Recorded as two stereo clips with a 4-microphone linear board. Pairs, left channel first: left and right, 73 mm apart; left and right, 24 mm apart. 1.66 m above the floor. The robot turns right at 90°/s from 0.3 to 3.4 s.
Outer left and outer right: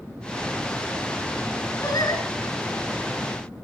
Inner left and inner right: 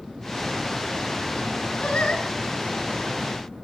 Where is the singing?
45° left, 6 m; by 2.2 s 80° left, 6 m.